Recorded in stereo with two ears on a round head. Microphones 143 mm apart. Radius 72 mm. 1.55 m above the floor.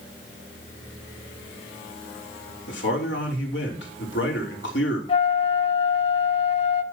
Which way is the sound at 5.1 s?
35° left (ahead or behind).